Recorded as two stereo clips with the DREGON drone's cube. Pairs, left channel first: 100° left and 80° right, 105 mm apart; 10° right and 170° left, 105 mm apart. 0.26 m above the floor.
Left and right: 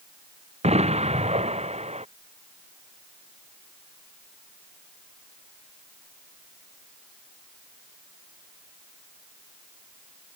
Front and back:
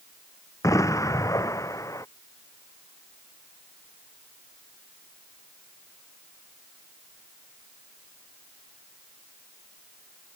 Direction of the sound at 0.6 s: 70° right.